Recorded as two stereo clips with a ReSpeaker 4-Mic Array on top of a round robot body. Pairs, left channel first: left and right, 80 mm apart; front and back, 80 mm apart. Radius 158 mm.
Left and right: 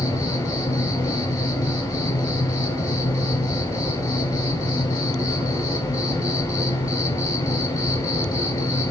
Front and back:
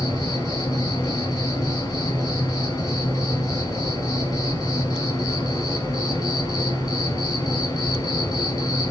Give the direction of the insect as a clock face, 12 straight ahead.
10 o'clock.